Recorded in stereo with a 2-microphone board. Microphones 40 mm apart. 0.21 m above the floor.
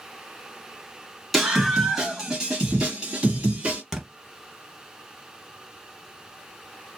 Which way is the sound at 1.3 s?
Centre (ahead or behind).